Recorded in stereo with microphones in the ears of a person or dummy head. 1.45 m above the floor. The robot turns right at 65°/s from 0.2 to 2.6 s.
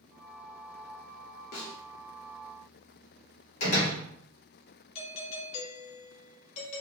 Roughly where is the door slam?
Left.